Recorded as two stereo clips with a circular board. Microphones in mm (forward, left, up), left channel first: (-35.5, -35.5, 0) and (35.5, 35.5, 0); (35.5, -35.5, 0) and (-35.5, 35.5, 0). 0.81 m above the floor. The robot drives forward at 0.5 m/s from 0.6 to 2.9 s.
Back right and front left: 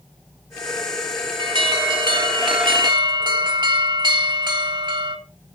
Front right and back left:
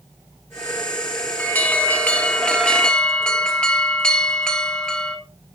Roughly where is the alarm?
Ahead left.